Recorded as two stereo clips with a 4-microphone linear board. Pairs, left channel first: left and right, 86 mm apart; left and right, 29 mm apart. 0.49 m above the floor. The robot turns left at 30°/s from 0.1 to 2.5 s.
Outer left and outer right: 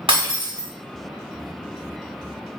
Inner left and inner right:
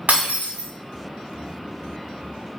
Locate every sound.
0.1 s breaking glass: 80° right, 1.5 m; by 0.7 s 65° right (ahead or behind), 1.5 m